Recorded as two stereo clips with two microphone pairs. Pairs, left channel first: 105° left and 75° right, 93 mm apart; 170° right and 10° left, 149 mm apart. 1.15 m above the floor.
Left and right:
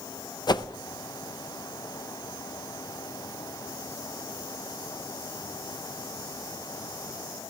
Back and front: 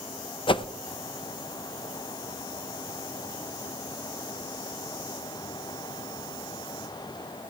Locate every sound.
0.5 s a whoosh: 140° left, 0.5 m